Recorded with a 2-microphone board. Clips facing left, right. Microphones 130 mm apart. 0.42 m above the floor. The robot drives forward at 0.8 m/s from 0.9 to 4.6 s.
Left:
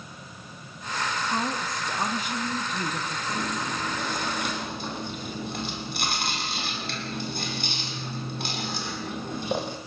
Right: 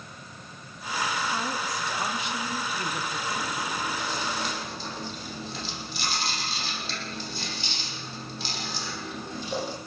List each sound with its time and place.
1.3 s a woman speaking: 55° left (ahead or behind), 4 m; by 3.2 s 40° left (ahead or behind), 5 m
3.3 s chewing: 50° left (ahead or behind), 6.5 m; by 9.8 s 60° left (ahead or behind), 6 m